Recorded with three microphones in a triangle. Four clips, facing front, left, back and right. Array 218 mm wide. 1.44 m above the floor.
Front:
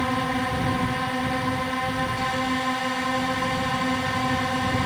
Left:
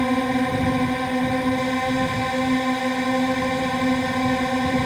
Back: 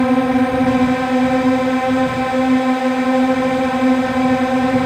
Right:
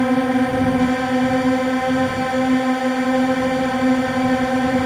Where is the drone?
155° right.